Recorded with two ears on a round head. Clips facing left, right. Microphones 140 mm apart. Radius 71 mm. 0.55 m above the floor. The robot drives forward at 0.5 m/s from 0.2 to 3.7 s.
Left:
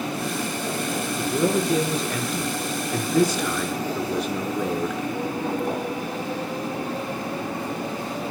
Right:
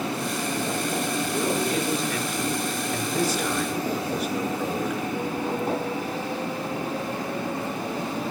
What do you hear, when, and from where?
1.2 s a man speaking: 75° left (ahead or behind), 6.5 m; by 5.0 s 85° left, 6.5 m